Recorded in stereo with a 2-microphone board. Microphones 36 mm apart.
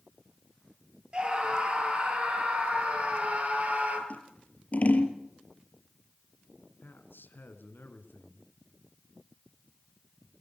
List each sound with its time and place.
1.1 s a scream: 30° right (ahead or behind), 8 m; by 4.0 s 45° right (ahead or behind), 7.5 m
4.1 s scissors: 45° left (ahead or behind), 3.5 m
6.8 s a man speaking: 75° left (ahead or behind), 4.5 m